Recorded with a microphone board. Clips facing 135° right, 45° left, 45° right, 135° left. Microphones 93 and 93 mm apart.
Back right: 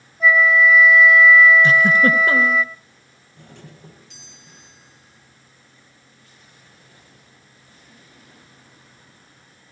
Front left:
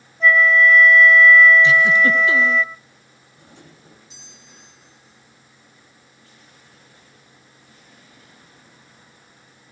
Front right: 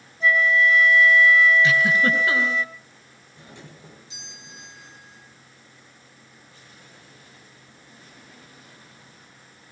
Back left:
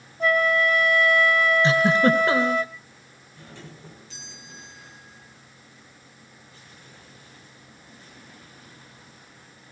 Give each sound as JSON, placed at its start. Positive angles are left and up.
{"t": 0.2, "sound": "a flute", "azimuth_deg": 145, "distance_m": 1.3}
{"t": 1.6, "sound": "a giggle", "azimuth_deg": -165, "distance_m": 3.0}
{"t": 3.4, "sound": "a doorbell", "azimuth_deg": -115, "distance_m": 8.5}